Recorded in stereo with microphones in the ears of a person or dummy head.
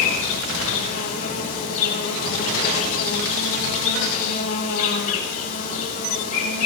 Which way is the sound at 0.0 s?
35° left (ahead or behind).